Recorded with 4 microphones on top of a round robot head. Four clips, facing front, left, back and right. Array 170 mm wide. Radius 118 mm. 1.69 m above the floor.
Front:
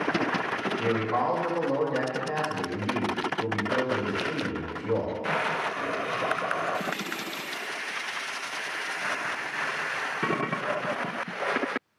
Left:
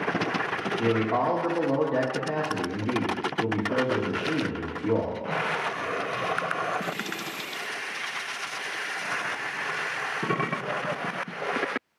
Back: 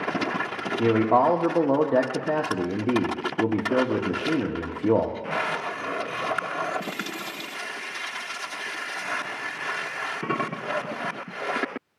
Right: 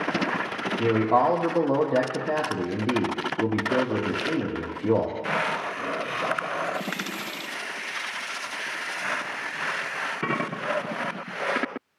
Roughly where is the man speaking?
Behind.